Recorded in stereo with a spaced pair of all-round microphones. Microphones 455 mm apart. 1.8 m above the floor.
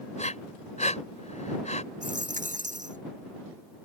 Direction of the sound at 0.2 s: 15° left (ahead or behind).